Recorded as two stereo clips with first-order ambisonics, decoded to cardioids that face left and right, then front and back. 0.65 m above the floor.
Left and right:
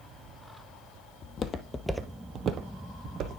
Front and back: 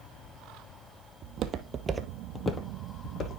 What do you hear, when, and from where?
1.2 s footsteps: 140° left, 0.9 m; by 3.4 s 50° right, 1.4 m